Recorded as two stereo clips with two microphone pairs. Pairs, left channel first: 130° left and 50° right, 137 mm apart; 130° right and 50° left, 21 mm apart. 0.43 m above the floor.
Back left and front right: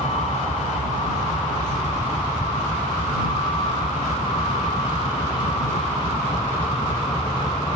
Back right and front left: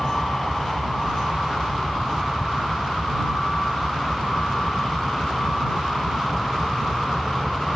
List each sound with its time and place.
0.0 s a vehicle: 170° left; by 7.8 s 175° right